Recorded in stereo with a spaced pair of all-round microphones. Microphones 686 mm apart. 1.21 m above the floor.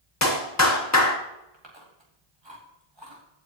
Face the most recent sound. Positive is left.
turn(degrees=-40)  # may be behind; listen again after turning